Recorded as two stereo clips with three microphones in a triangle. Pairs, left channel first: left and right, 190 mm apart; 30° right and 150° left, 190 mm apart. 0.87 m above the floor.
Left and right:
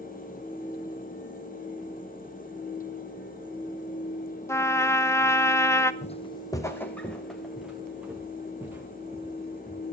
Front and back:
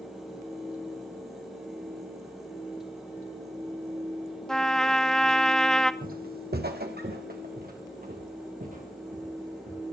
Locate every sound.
4.5 s a trumpet: 50° left, 0.8 m
6.0 s footsteps: 130° left, 1.5 m; by 9.8 s 165° right, 6 m